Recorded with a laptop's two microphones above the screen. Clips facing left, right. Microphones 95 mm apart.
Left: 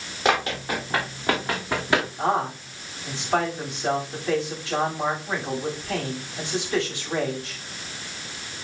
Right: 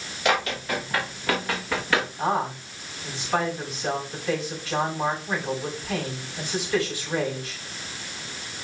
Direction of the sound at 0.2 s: 30° left (ahead or behind).